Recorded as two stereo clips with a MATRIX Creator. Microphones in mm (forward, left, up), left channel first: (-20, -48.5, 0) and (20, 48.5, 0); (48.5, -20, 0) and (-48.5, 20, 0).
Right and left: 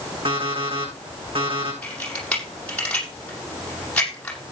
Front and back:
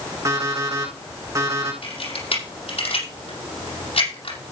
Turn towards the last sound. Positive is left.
turn(degrees=-35)